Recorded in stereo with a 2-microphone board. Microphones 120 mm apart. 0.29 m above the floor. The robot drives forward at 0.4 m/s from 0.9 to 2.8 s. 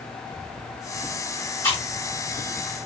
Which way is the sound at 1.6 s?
25° left (ahead or behind).